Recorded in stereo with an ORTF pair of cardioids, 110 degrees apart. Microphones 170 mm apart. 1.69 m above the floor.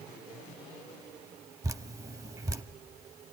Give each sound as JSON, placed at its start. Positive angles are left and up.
{"t": 1.6, "sound": "dripping", "azimuth_deg": -20, "distance_m": 0.7}